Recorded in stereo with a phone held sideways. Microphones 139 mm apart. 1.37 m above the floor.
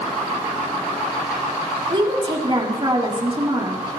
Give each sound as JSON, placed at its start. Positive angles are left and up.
{"t": 1.9, "sound": "a woman speaking", "side_deg": -40, "distance_m": 3.5}